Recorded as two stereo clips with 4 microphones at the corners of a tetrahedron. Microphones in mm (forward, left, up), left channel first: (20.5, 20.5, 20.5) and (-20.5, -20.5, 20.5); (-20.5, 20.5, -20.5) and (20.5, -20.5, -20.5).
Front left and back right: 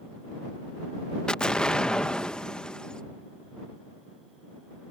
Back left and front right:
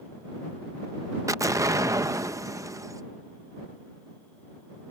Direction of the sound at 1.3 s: 30° right.